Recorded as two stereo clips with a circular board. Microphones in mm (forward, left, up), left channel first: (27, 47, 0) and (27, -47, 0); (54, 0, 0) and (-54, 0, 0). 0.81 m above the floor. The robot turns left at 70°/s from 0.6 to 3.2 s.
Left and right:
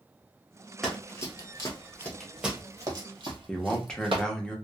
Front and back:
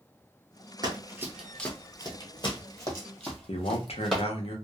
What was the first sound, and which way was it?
Running footsteps, 175° left.